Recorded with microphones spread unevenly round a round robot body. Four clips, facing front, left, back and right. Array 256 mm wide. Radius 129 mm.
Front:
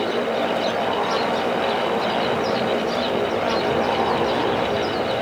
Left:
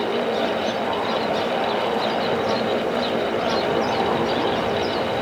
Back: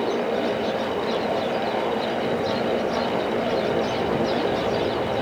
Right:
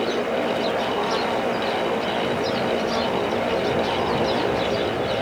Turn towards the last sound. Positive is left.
No sound to turn to.